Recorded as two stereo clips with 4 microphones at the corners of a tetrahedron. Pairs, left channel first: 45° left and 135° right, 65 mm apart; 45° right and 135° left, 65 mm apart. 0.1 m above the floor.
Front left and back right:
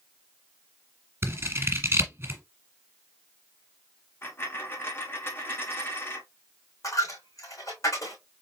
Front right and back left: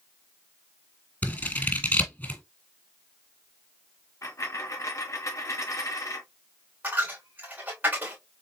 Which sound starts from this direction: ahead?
A dropped coin, at 4.2 s.